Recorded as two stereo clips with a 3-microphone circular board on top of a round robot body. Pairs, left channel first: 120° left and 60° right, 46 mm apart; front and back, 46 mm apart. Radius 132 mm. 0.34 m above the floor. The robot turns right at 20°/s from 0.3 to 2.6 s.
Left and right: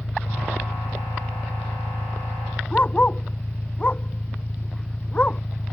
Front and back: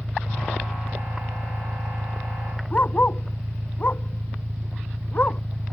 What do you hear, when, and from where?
0.0 s an engine running: 135° left; by 5.7 s straight behind
2.7 s a dog barking: 55° left